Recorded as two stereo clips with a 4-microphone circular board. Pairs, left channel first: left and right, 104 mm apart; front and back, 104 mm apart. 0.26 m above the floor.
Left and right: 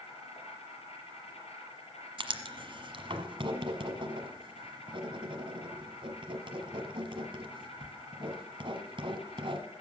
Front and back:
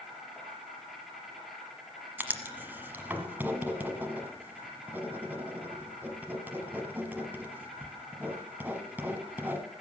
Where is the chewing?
No chewing in this recording.